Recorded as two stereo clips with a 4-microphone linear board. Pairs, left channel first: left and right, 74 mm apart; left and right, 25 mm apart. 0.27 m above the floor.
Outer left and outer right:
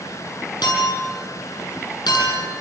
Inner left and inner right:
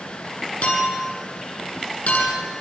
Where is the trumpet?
No trumpet in this recording.